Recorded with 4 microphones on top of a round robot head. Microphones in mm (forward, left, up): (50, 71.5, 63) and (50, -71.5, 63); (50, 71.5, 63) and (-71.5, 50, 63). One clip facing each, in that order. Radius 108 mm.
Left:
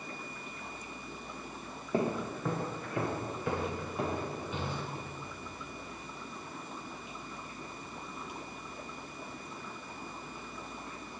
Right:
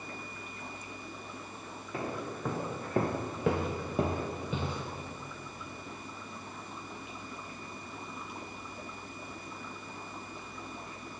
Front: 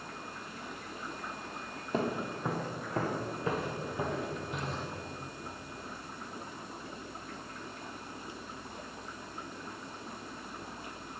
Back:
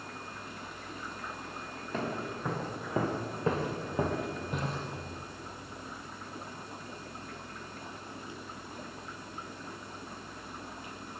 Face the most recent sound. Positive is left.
turn(degrees=-105)